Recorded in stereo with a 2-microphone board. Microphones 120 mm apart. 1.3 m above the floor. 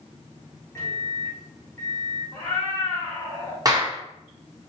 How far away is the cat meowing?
About 1.7 m.